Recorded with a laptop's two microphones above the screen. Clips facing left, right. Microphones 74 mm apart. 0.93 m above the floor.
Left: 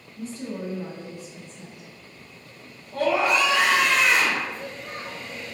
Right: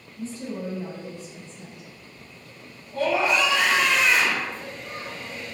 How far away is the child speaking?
About 0.6 m.